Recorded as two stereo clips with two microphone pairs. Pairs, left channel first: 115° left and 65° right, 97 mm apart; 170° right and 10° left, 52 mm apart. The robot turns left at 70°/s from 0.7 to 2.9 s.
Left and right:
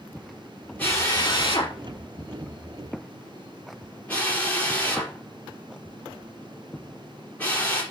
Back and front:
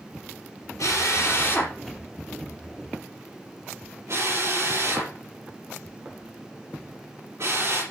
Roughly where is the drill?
Behind.